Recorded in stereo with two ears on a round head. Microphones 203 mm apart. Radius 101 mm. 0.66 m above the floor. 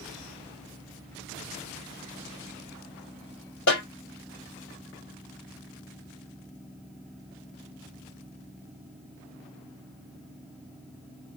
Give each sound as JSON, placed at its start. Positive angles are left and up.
{"t": 3.7, "sound": "a snare drum", "side_deg": 55, "distance_m": 2.5}